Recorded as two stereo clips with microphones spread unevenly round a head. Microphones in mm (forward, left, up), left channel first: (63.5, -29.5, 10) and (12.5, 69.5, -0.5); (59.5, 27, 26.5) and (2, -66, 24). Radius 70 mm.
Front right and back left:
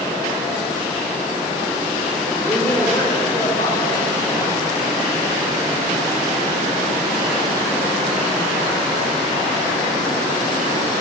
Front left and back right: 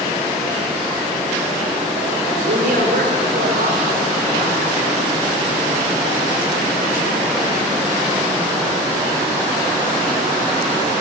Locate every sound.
2.4 s a woman speaking: 140° right, 2.5 m; by 5.0 s 125° right, 6 m